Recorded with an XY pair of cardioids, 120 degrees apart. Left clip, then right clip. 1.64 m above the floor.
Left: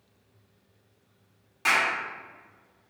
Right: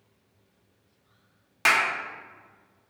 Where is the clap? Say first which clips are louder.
Right 2 dB; 60° right, 0.6 m.